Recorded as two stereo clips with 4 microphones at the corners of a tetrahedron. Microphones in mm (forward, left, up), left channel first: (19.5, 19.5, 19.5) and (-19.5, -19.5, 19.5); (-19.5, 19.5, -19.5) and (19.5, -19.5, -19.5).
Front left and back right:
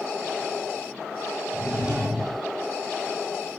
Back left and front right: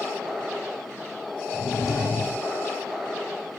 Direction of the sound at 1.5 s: 145° left.